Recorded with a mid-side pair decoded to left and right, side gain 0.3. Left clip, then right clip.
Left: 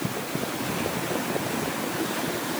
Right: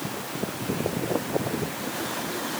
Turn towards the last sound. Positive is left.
No sound to turn to.